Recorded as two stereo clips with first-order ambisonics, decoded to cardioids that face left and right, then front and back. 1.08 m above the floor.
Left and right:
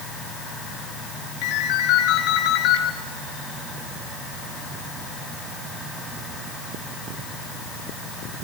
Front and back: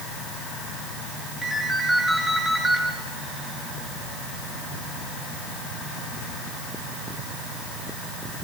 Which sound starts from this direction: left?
A ringtone, at 1.4 s.